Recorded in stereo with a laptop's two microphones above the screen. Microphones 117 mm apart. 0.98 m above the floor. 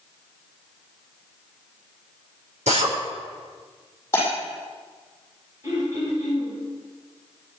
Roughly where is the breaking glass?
Left.